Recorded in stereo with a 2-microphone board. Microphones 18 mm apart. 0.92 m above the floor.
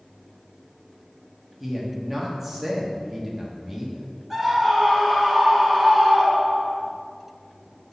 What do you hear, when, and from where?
1.6 s a man speaking: 15° right (ahead or behind), 1.6 m
4.3 s a scream: 10° right (ahead or behind), 3 m